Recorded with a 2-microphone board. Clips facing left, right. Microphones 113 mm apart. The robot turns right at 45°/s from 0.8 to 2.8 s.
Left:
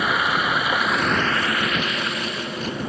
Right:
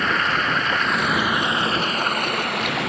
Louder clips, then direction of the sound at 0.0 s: Even; 170° left.